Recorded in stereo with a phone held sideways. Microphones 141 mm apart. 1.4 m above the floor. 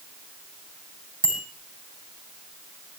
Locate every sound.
1.2 s a bicycle bell: 75° right (ahead or behind), 6 m